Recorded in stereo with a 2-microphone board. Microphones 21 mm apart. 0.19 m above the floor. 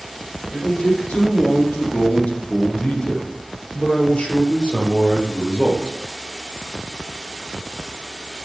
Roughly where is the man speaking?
Left.